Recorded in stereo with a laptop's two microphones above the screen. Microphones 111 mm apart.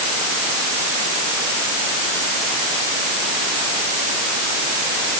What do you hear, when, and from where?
Only background noise.